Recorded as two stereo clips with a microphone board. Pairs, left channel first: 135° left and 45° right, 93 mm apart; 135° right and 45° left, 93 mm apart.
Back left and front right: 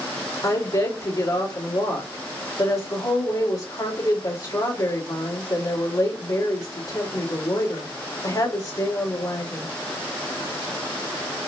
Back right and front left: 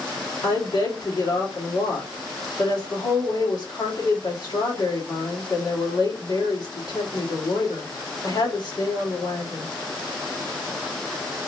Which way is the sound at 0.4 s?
175° right.